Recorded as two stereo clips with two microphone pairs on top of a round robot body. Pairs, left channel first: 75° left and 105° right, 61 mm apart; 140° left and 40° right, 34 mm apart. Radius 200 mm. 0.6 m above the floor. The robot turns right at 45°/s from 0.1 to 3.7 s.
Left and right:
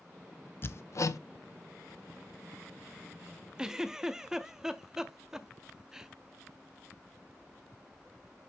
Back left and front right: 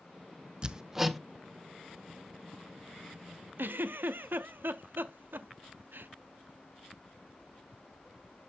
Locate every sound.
0.6 s hammering: 20° left, 0.6 m; by 1.2 s 50° left, 0.6 m
3.6 s a giggle: 30° right, 0.5 m; by 6.1 s 25° right, 0.5 m